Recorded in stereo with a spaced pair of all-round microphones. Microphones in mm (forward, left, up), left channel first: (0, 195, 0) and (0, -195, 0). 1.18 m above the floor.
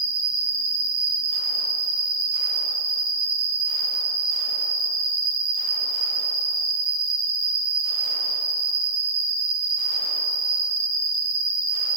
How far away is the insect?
About 1.4 m.